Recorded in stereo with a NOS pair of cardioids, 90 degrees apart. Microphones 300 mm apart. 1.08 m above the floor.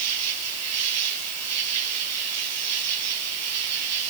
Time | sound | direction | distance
0.0 | an insect | 60° right | 8.5 m